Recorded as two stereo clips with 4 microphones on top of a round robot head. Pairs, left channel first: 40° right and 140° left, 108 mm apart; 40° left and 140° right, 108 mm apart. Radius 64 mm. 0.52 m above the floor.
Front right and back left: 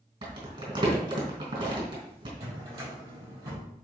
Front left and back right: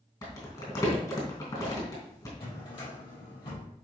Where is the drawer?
85° left, 4.5 m.